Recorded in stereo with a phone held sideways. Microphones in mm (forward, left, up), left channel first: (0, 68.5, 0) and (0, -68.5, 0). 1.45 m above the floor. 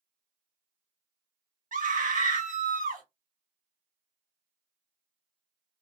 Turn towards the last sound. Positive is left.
turn(degrees=-80)